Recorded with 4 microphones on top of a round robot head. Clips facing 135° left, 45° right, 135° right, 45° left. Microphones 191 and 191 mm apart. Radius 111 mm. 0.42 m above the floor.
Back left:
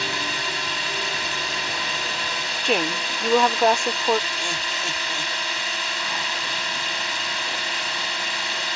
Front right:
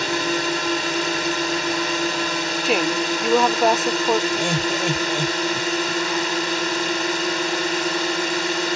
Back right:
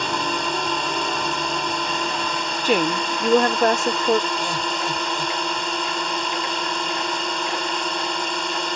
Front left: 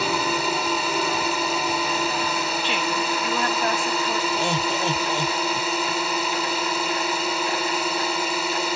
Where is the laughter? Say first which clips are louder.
Front right 11 dB, front left 2 dB; 20° right.